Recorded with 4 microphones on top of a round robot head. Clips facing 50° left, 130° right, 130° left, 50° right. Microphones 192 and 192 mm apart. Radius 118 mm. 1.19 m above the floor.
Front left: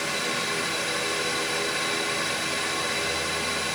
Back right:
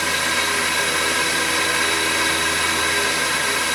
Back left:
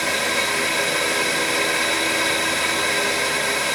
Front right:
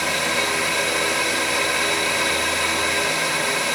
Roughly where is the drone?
Behind right.